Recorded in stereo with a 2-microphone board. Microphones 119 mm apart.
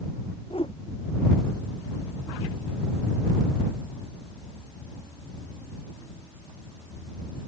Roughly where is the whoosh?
Left.